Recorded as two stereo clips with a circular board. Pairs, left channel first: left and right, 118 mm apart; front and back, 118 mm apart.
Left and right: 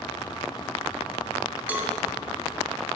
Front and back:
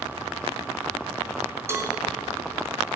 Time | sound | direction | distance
1.7 | a cowbell | 145° right | 1.0 m